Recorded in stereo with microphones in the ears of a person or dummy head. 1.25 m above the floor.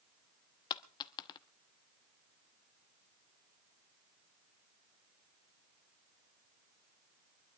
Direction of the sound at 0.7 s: 20° left (ahead or behind).